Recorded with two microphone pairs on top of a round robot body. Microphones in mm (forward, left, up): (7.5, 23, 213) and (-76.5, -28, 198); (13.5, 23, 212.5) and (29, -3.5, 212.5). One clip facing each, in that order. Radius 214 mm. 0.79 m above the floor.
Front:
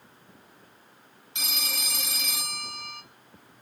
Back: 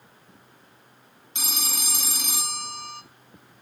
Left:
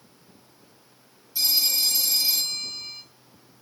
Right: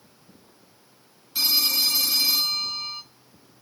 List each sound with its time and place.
1.4 s a phone ringing: 95° right, 1.9 m